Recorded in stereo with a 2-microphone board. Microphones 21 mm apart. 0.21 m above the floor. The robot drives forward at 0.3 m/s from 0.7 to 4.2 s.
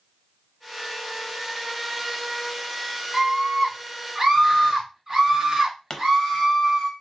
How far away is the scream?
About 1.5 m.